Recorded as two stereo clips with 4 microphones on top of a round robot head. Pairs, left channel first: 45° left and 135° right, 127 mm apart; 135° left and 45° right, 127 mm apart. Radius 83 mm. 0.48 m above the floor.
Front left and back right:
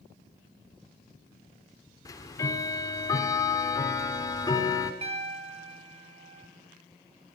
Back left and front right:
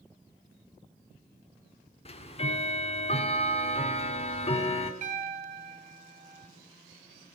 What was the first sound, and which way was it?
Ticking, 105° left.